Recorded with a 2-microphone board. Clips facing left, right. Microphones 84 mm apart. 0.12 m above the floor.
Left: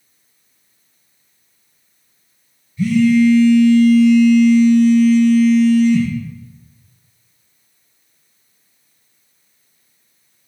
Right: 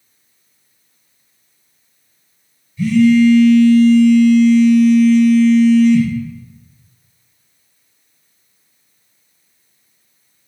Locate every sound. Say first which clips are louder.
2.8 s a phone buzzing: right 2 dB; 5° left (ahead or behind), 1.8 m